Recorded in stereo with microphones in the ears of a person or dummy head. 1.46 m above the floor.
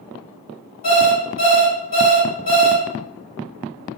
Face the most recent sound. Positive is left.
turn(degrees=40)  # may be behind; listen again after turning